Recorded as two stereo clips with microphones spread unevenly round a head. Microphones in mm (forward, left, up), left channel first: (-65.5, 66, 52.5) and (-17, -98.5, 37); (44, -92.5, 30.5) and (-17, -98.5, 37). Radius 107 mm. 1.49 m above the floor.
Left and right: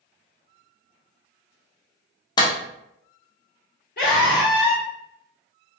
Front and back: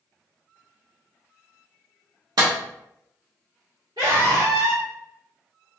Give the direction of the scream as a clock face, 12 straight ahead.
7 o'clock.